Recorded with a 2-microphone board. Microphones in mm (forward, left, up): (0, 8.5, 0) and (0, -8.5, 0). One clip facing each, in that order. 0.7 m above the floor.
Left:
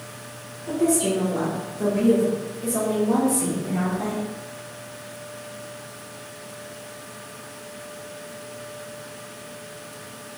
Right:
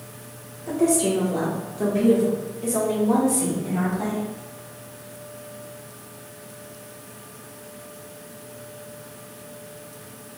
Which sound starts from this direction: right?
A woman speaking, at 0.7 s.